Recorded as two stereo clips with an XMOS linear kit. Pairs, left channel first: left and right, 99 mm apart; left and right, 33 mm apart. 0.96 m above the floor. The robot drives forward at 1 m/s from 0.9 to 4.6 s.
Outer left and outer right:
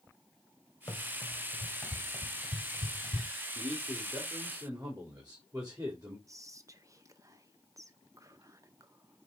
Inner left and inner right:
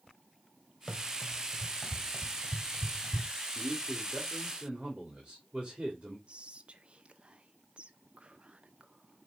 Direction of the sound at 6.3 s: 30° right (ahead or behind).